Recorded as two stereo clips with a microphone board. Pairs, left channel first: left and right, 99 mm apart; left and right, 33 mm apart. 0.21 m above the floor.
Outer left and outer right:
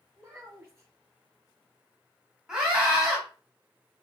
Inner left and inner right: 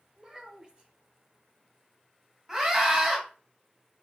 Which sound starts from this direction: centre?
A scream, at 2.5 s.